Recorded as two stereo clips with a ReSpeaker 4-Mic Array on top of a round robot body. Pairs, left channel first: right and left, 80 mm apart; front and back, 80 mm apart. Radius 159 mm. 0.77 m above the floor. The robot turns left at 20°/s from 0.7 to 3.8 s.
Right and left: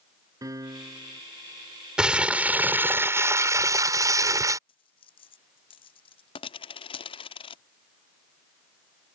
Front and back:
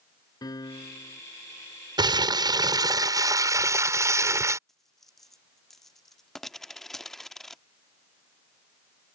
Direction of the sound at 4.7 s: 85° right.